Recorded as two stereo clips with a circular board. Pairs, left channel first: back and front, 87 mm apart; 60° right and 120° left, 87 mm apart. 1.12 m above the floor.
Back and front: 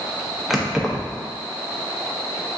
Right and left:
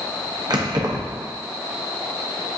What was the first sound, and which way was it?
Keys jangling, 85° left.